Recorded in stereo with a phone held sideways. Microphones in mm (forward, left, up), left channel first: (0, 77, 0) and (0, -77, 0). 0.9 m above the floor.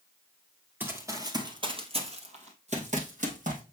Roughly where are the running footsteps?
Centre.